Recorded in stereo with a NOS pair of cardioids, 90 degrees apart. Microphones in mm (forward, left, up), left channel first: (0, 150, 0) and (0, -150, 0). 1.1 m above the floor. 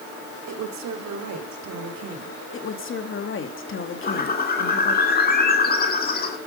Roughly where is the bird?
Ahead left.